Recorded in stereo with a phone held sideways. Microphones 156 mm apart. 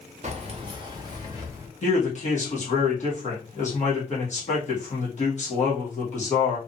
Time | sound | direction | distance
0.2 | keys jangling | 45° right (ahead or behind) | 0.6 m
1.8 | a man speaking | 45° left (ahead or behind) | 1.4 m